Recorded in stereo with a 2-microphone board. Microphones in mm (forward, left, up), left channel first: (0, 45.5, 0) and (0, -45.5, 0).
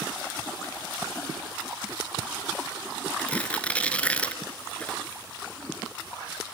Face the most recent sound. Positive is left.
turn(degrees=15)  # may be behind; listen again after turning